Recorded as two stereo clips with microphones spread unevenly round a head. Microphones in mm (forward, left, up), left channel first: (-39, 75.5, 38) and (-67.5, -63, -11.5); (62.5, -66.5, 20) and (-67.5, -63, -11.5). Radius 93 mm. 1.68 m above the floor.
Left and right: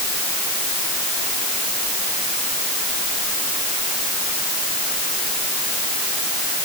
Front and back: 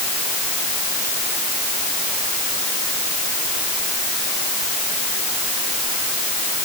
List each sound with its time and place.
Only background noise.